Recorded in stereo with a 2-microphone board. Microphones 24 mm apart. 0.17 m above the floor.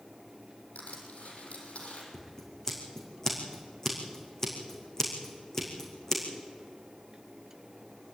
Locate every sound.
0.8 s crushing: 80° left, 6 m
2.1 s scissors: 20° left (ahead or behind), 4.5 m